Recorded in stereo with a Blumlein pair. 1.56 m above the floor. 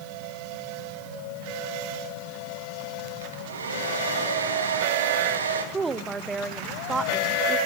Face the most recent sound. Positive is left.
turn(degrees=-15)